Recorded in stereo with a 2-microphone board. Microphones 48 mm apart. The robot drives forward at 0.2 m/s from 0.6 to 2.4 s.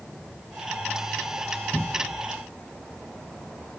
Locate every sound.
1.7 s a cupboard door: 25° left (ahead or behind), 1.1 m